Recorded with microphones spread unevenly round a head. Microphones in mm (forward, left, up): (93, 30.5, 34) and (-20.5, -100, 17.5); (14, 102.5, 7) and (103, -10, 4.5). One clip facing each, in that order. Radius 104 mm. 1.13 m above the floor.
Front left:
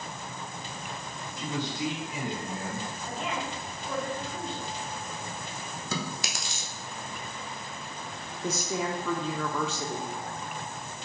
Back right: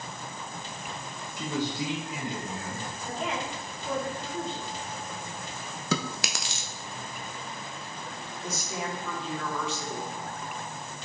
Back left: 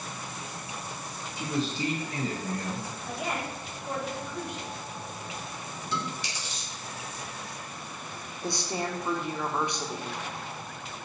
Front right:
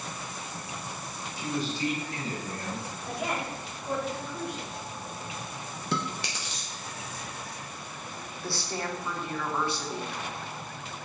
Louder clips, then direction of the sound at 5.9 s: Back right 5 dB, front right 3 dB; 105° right.